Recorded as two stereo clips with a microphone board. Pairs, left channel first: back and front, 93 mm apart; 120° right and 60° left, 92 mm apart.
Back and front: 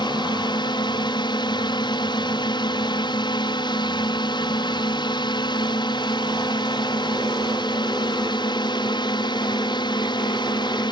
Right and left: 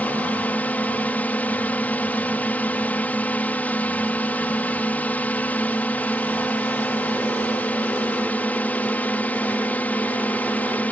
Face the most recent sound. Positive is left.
turn(degrees=170)